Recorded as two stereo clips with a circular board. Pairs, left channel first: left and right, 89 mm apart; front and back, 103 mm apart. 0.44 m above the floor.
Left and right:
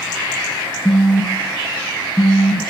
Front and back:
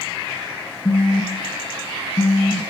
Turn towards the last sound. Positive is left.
turn(degrees=0)